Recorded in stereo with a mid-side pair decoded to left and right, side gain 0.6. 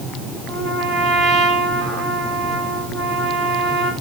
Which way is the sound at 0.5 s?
60° right.